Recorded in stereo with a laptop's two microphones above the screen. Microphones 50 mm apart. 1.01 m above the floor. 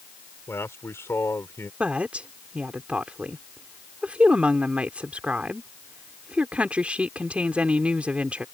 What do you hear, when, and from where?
0.5 s a man speaking: 60° left (ahead or behind)
1.8 s a woman speaking: 25° right (ahead or behind)